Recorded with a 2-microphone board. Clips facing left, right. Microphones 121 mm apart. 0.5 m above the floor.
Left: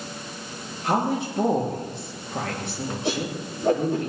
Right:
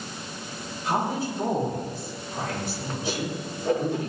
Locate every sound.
0.8 s a woman speaking: 85° left, 8.5 m
3.0 s a whoosh: 55° left (ahead or behind), 9 m